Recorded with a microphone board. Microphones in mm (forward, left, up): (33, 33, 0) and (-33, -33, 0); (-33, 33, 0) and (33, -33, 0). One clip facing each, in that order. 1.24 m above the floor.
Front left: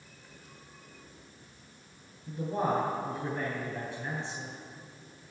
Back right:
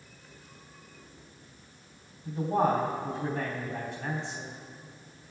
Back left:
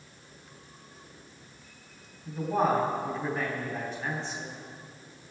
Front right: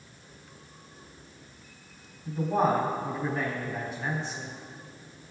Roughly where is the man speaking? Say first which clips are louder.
Back right 4 dB, front right 1 dB; behind right.